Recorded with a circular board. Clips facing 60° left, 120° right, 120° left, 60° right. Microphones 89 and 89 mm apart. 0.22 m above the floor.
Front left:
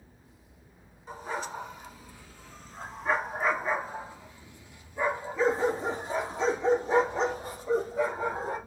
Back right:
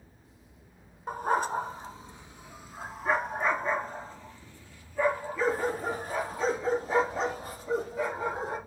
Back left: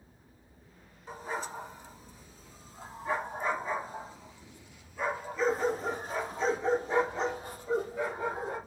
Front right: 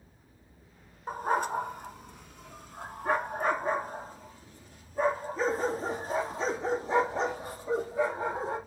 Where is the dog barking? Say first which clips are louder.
Back right 8 dB, front right 9 dB; 90° right, 0.9 m; by 8.6 s straight ahead, 3.5 m.